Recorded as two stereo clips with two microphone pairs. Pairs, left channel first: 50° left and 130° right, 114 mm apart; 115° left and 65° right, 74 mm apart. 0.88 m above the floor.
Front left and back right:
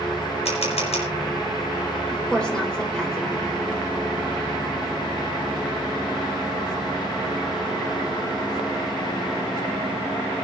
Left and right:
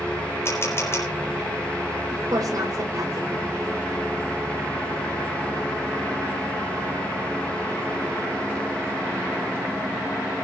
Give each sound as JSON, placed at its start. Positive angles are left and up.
{"t": 0.5, "sound": "a camera shutter", "azimuth_deg": 65, "distance_m": 4.5}
{"t": 2.1, "sound": "a woman speaking", "azimuth_deg": -35, "distance_m": 4.0}